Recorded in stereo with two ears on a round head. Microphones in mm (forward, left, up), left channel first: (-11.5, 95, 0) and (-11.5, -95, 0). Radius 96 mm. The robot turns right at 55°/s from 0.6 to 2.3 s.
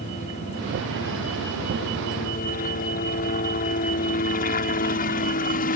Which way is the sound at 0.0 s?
40° left.